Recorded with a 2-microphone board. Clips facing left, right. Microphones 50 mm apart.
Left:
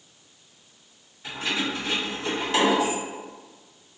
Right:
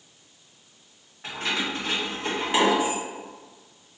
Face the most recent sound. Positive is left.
turn(degrees=-5)  # may be behind; listen again after turning